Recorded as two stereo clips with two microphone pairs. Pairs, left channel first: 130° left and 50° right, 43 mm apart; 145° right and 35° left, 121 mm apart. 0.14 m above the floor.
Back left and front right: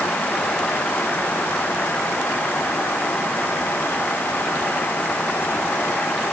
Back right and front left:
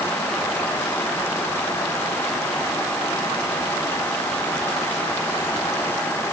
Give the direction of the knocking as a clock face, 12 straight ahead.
I don't hear knocking.